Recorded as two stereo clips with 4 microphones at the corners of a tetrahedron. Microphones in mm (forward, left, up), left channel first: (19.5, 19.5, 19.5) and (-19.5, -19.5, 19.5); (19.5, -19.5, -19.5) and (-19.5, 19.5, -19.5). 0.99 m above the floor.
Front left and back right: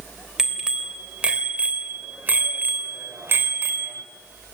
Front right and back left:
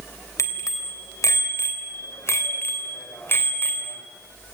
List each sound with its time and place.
0.4 s a bicycle bell: 55° right, 3.5 m; by 4.0 s 100° right, 3 m